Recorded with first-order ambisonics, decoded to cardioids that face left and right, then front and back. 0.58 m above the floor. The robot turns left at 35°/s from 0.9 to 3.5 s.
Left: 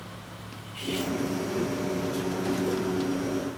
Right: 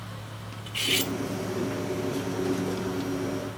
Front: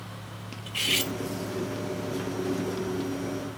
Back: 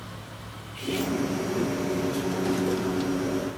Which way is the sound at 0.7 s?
40° right.